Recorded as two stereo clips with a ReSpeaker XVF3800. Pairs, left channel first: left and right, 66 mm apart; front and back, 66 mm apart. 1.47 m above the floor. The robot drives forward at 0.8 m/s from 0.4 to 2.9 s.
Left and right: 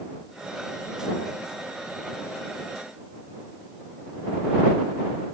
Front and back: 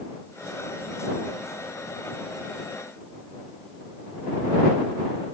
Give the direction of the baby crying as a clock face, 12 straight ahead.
I don't hear a baby crying.